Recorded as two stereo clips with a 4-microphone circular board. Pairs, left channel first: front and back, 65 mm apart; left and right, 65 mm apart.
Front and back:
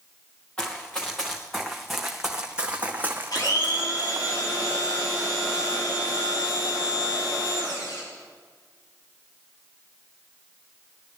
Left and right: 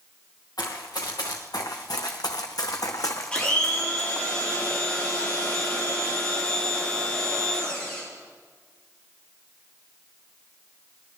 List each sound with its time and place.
0.6 s running footsteps: 75° left, 3.5 m; by 4.3 s 145° left, 2 m
3.3 s a blender: 15° left, 6 m